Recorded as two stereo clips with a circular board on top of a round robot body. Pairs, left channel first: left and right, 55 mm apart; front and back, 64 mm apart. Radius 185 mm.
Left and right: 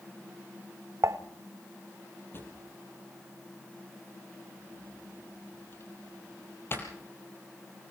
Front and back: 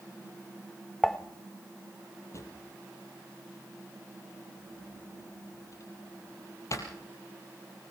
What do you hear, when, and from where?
1.0 s dishes clattering: 80° right, 1.1 m
2.3 s a drawer: 40° left, 3.5 m